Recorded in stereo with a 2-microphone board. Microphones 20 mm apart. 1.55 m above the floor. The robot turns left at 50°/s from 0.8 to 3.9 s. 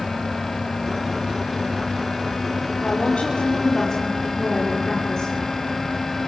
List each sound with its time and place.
2.8 s a woman speaking: 85° left, 5 m; by 5.3 s 30° left, 5 m